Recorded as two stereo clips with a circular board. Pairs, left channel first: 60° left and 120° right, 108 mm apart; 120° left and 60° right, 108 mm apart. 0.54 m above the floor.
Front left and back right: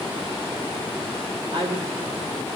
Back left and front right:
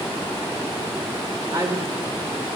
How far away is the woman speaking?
About 1.8 m.